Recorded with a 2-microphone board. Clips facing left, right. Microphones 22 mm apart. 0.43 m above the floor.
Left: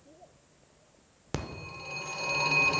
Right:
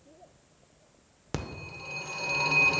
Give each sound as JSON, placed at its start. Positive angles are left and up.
{"t": 1.3, "sound": "a phone ringing", "side_deg": 0, "distance_m": 0.5}